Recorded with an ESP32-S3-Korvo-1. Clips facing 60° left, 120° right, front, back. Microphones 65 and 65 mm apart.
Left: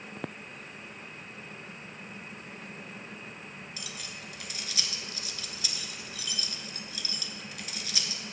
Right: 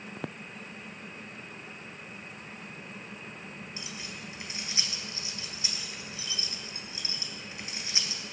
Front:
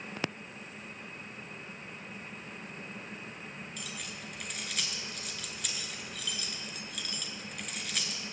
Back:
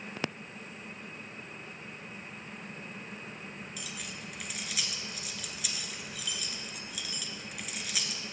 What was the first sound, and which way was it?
Keys jangling, 95° right.